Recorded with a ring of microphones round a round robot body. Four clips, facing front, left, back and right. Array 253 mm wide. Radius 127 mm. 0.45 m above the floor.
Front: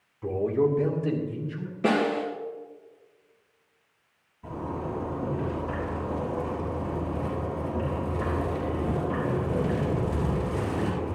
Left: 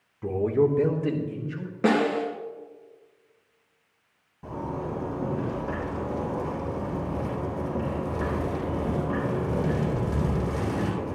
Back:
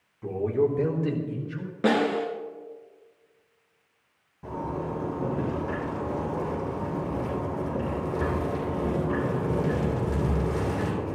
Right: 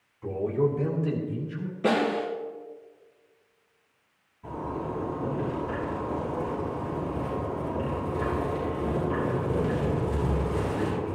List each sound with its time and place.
0.2 s a man speaking: 80° left, 1.2 m; by 1.7 s 125° left, 3 m
1.8 s a snare drum: 125° left, 3.5 m
4.4 s a zipper: 135° left, 5 m